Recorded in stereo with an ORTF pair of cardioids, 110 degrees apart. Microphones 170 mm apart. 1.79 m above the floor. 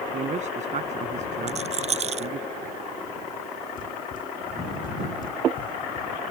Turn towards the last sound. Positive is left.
turn(degrees=60)